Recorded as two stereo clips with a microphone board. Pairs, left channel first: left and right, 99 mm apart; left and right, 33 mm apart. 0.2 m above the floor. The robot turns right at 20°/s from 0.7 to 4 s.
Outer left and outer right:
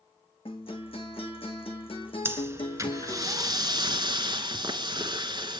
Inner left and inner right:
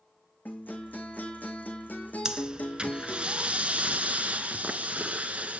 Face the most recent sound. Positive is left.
turn(degrees=-120)